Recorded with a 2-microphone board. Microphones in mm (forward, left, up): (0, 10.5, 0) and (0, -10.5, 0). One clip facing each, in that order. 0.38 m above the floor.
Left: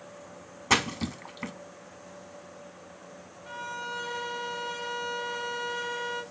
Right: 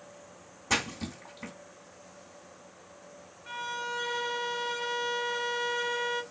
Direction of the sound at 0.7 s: 30° left (ahead or behind).